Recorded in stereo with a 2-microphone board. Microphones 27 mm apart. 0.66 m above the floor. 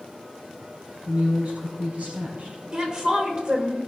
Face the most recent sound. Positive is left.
turn(degrees=-40)  # may be behind; listen again after turning